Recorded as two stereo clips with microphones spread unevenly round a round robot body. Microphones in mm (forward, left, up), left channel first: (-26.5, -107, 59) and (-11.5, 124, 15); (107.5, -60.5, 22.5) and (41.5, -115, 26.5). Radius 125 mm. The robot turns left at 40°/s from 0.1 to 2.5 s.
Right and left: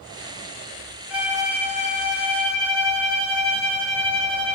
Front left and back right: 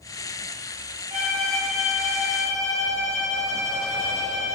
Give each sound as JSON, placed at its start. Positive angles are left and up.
{"t": 1.1, "sound": "a violin", "azimuth_deg": 165, "distance_m": 0.8}